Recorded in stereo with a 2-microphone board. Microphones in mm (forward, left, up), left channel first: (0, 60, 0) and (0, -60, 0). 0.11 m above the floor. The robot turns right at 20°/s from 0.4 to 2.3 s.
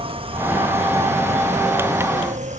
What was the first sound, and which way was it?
An insect, 130° right.